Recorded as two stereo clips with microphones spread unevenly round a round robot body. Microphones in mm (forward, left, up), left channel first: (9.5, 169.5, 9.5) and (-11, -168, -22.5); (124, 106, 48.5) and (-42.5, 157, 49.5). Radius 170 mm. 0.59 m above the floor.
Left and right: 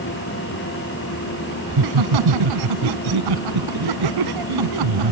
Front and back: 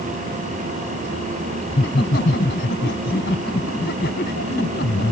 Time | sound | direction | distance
1.7 | laughter | 70° right | ?